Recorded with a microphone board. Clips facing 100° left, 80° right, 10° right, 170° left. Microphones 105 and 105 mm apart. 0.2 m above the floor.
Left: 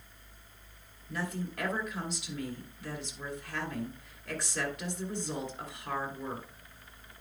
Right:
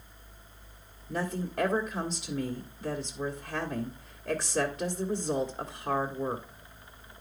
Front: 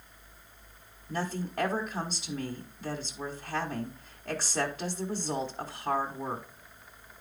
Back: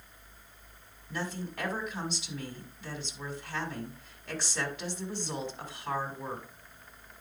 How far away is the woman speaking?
About 1.5 m.